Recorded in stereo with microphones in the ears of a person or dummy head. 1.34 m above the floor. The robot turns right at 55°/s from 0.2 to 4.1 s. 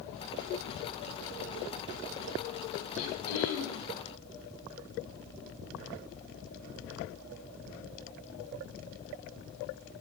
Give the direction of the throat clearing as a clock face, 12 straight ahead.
11 o'clock.